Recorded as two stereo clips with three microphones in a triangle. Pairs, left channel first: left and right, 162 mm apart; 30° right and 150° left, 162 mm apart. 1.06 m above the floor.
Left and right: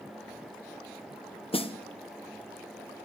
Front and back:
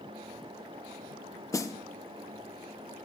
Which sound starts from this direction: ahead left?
A snare drum, at 1.5 s.